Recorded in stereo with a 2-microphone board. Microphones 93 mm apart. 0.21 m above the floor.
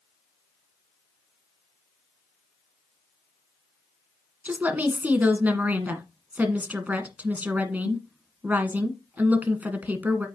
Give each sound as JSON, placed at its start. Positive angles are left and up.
{"t": 4.5, "sound": "a woman speaking", "side_deg": -15, "distance_m": 1.8}